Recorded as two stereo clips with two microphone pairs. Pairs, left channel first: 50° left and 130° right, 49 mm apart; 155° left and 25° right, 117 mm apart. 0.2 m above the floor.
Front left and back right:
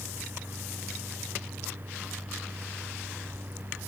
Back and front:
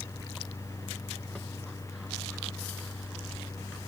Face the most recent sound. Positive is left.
No sound to turn to.